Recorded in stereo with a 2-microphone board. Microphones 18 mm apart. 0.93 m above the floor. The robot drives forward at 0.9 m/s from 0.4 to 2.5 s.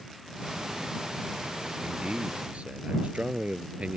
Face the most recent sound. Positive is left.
turn(degrees=-75)  # may be behind; listen again after turning